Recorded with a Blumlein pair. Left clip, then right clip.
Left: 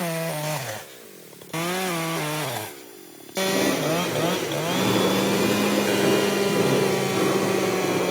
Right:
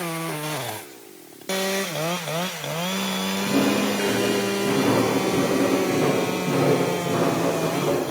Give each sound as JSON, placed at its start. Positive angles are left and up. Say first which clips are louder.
{"t": 3.4, "sound": "footsteps", "louder": "left 2 dB", "azimuth_deg": -30, "distance_m": 8.0}